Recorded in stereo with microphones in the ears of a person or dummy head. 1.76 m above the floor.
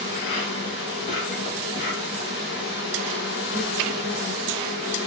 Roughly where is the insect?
Left.